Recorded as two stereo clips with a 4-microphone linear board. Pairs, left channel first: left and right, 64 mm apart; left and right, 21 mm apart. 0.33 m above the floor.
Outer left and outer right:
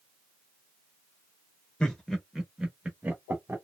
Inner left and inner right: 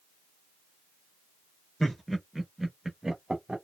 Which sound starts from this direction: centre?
Laughter, at 1.8 s.